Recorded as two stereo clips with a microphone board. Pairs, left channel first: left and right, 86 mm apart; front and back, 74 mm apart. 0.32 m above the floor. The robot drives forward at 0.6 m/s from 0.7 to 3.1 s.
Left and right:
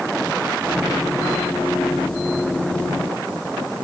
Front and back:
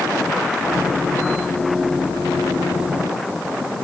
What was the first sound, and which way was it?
Only background noise.